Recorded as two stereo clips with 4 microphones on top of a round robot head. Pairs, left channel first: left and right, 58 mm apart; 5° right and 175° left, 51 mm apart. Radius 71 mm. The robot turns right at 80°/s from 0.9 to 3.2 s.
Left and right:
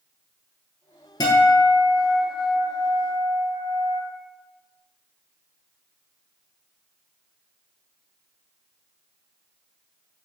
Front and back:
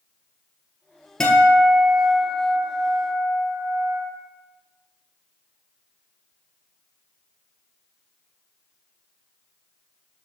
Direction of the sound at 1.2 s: 70° left.